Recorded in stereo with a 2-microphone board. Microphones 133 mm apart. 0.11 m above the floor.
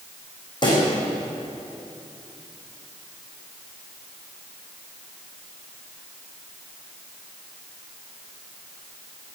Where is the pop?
35° left (ahead or behind), 5 m.